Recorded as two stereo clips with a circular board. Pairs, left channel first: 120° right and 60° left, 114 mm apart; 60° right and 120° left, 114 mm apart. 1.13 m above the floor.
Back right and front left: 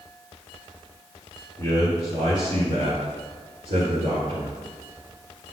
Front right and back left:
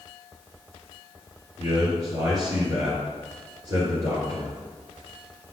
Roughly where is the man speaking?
Ahead left.